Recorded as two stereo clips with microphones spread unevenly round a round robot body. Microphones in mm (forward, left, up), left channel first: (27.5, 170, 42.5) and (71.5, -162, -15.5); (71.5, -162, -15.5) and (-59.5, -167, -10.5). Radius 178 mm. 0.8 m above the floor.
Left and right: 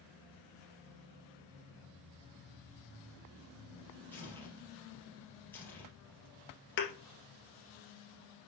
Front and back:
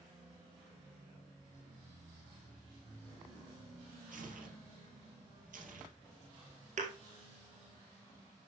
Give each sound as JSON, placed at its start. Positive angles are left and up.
{"t": 4.1, "sound": "tearing paper", "azimuth_deg": 180, "distance_m": 3.0}
{"t": 6.8, "sound": "a thud", "azimuth_deg": 150, "distance_m": 1.7}